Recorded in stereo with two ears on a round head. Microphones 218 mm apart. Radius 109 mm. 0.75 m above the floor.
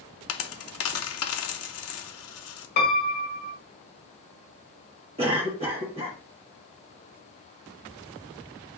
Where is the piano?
40° left (ahead or behind), 1.6 m.